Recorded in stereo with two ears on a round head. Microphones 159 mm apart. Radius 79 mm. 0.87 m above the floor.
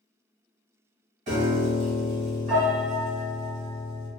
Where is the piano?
40° right (ahead or behind), 1.3 m.